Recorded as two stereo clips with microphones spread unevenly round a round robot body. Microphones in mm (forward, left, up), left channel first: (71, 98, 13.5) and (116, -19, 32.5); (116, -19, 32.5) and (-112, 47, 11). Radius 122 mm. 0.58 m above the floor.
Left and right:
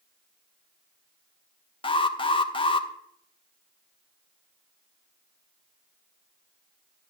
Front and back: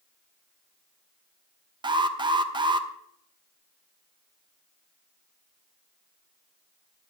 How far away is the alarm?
About 0.9 m.